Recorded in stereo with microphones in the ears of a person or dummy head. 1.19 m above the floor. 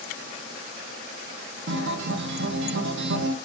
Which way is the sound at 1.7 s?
70° right (ahead or behind).